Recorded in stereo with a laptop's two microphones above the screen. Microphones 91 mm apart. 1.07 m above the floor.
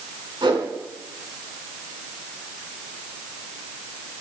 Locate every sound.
0.4 s a whoosh: 55° right (ahead or behind), 4 m